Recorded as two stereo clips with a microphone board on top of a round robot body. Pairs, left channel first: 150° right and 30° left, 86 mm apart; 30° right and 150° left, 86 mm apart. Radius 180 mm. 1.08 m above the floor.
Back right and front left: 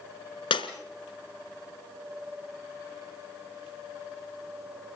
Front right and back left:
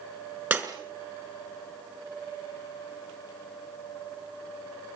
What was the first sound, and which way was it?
Breaking glass, 145° right.